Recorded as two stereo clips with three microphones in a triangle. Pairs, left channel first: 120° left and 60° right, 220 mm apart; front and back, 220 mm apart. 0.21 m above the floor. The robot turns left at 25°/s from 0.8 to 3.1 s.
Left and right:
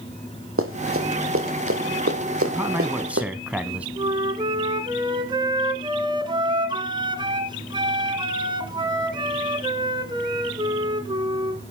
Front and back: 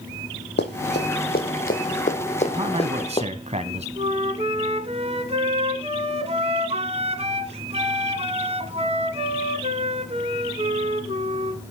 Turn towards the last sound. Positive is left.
turn(degrees=-125)